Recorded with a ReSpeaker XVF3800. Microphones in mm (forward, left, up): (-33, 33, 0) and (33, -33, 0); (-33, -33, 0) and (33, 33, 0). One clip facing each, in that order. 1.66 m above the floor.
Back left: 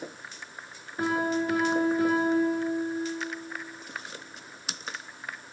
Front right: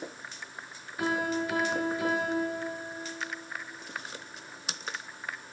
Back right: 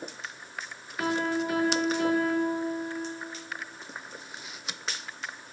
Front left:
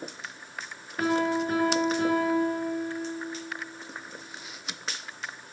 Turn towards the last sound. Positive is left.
turn(degrees=90)